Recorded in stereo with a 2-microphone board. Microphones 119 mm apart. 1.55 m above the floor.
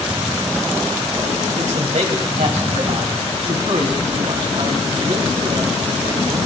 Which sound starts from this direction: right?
A man speaking, at 1.6 s.